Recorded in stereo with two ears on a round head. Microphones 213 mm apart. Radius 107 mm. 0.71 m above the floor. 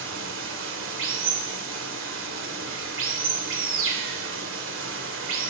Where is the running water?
55° right (ahead or behind), 2.5 m.